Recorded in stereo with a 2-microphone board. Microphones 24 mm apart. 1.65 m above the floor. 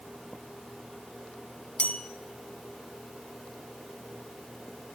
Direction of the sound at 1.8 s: 65° left (ahead or behind).